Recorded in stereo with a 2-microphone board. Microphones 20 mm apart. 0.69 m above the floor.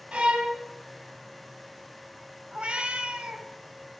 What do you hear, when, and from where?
0.1 s a violin: 70° right (ahead or behind), 2 m
2.5 s a cat meowing: 70° right (ahead or behind), 1.8 m